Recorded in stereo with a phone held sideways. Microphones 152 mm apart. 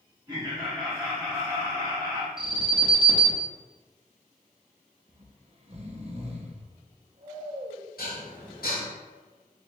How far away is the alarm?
About 0.7 m.